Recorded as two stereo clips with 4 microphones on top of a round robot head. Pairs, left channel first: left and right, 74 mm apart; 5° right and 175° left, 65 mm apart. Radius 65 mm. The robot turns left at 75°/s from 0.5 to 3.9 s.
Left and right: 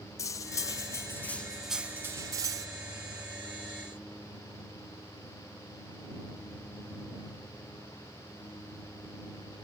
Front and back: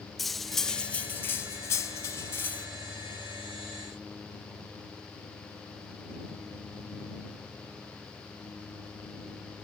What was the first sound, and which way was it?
Cutlery clinking, 85° left.